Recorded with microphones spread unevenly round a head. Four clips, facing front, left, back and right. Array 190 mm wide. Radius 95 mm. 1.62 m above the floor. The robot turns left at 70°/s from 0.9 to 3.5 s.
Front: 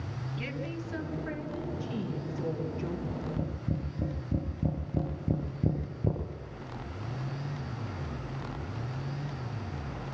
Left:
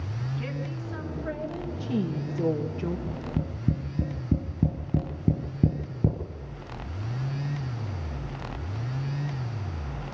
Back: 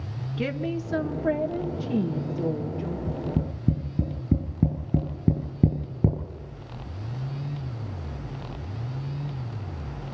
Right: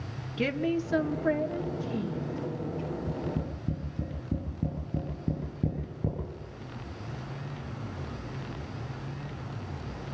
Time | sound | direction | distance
0.4 | a woman speaking | 130° right | 1.9 m
3.1 | tapping | 170° right | 5.5 m